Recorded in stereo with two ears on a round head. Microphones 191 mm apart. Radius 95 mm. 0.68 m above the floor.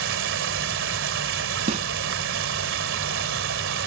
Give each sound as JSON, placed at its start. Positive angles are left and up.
{"t": 0.0, "sound": "running water", "side_deg": -60}
{"t": 1.7, "sound": "a snare drum", "side_deg": -35}